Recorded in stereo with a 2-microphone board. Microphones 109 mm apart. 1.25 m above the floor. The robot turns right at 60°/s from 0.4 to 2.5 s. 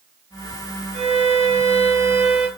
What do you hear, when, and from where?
0.9 s a violin: 105° right, 1.0 m; by 2.5 s 15° right, 1.0 m